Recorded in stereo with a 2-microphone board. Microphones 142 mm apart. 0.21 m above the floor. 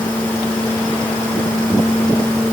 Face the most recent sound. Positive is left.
No sound to turn to.